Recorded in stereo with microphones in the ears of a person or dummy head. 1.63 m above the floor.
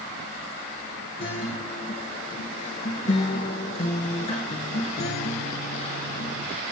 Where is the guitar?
25° left (ahead or behind), 2.0 m.